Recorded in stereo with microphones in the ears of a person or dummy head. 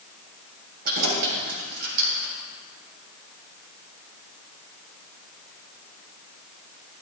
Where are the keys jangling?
50° right (ahead or behind), 5 m.